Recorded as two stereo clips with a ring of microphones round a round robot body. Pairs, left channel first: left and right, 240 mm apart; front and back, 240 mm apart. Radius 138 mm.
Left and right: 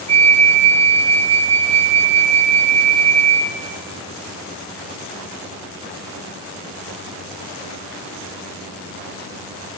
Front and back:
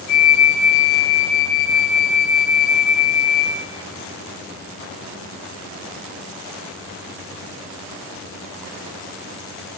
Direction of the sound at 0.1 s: 25° right.